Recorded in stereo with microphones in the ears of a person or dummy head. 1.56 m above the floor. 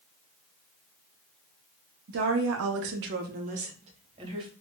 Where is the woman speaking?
50° right (ahead or behind), 0.6 m; by 4.5 s 30° right (ahead or behind), 1.5 m.